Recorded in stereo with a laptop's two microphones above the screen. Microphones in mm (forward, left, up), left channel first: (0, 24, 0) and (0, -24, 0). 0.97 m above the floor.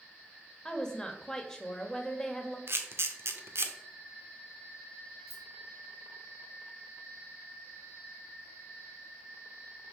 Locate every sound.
0.7 s a woman speaking: 15° left (ahead or behind), 1.6 m
2.7 s a camera shutter: 55° right (ahead or behind), 0.9 m
5.3 s keys jangling: 85° right, 2.5 m